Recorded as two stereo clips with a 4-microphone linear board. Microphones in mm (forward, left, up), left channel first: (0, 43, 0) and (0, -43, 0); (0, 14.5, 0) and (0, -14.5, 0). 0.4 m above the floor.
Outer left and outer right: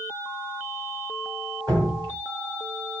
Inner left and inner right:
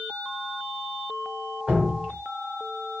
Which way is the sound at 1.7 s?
40° right (ahead or behind).